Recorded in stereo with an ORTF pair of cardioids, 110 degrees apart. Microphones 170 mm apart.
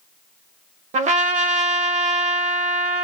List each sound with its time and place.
0.9 s a trumpet: 45° right, 0.8 m